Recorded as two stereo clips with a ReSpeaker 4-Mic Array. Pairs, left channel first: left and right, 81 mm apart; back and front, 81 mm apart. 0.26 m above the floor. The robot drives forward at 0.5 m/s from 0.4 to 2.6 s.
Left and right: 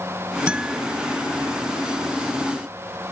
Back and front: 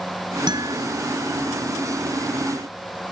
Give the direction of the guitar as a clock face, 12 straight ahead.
12 o'clock.